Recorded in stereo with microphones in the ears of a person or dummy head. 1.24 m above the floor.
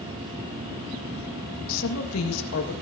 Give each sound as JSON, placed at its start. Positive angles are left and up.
{"t": 1.7, "sound": "a woman speaking", "side_deg": 75, "distance_m": 1.5}